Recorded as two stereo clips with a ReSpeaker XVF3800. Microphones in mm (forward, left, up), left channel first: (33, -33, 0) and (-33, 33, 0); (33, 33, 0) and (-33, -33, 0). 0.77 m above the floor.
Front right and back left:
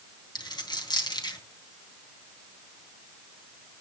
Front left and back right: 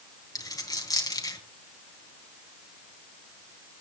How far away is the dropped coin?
About 3 m.